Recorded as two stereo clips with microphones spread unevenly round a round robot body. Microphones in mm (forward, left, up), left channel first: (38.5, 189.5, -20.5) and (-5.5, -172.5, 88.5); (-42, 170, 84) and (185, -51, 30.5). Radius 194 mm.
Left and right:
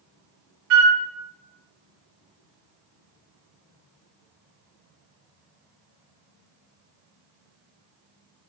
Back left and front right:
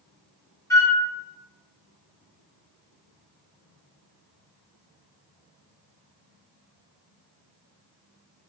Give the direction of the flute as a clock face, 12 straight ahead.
5 o'clock.